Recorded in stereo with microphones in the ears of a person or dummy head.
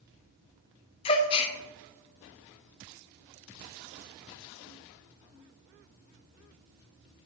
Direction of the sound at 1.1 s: 35° left (ahead or behind).